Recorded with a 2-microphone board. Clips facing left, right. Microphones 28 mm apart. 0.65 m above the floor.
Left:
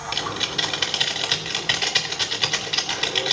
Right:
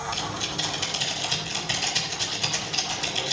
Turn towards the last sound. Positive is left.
turn(degrees=50)  # may be behind; listen again after turning